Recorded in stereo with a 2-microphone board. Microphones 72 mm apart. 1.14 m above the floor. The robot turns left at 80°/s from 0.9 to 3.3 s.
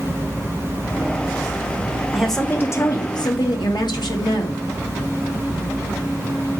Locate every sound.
2.1 s a woman speaking: 170° right, 2 m; by 4.6 s 95° left, 2 m